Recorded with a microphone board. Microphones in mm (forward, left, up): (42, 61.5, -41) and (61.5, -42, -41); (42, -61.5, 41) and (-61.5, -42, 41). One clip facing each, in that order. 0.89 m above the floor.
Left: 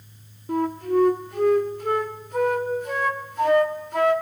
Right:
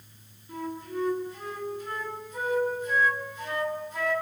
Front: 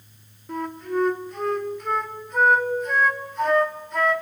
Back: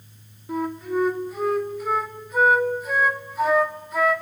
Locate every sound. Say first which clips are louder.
0.5 s a flute: left 12 dB, back 2 dB; 85° left, 1.9 m